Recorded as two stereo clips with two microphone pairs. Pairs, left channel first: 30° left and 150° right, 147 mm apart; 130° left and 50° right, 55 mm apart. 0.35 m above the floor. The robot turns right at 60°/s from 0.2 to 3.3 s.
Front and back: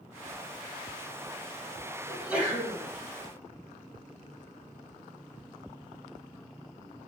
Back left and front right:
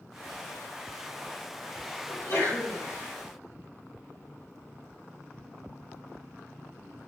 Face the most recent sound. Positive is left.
turn(degrees=-170)